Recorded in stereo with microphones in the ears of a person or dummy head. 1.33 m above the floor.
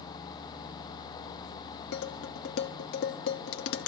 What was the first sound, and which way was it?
Dishes clattering, 60° left (ahead or behind).